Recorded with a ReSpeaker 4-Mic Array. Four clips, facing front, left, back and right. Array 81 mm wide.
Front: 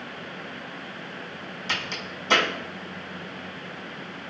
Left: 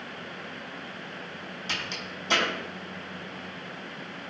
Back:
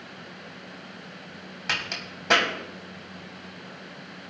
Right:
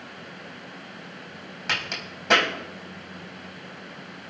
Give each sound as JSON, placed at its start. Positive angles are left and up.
{"t": 1.7, "sound": "a crack", "azimuth_deg": -135, "distance_m": 4.5}